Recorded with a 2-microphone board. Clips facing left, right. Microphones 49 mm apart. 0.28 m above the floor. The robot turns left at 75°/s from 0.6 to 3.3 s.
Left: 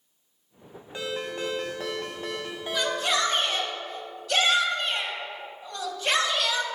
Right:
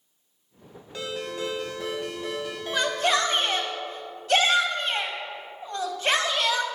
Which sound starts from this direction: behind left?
A ringtone, at 0.9 s.